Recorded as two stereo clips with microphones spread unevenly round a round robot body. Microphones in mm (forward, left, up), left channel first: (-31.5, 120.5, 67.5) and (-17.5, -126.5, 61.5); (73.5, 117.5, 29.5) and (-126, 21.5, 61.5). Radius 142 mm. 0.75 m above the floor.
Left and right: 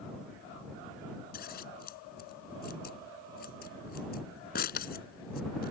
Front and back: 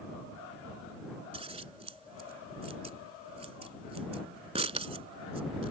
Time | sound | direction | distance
1.3 | scissors | 145° left | ?